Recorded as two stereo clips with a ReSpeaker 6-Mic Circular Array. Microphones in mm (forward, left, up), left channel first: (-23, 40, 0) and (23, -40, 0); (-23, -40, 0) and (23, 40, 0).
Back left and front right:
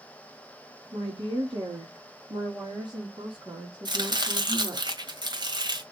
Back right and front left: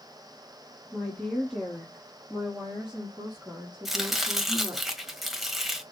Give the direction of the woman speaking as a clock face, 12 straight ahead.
1 o'clock.